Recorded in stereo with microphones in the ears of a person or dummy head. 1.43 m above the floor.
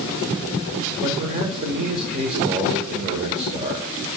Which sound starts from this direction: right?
A man speaking, at 1.0 s.